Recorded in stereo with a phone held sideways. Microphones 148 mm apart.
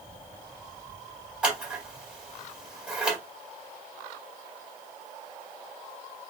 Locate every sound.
1.4 s scissors: 5° right (ahead or behind), 1.6 m